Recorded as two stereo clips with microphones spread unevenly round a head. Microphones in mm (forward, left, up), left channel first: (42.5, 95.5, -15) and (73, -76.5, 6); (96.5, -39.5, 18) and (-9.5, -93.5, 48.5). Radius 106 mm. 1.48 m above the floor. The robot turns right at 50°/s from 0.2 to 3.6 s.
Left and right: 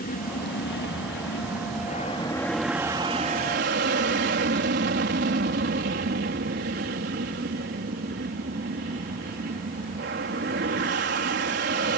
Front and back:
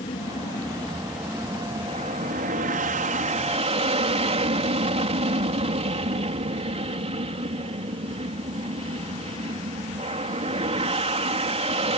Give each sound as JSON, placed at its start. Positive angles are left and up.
{"t": 0.0, "sound": "an aircraft", "azimuth_deg": 70}